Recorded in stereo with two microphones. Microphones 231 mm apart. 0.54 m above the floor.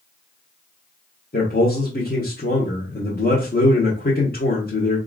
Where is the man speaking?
40° left (ahead or behind), 1.1 m.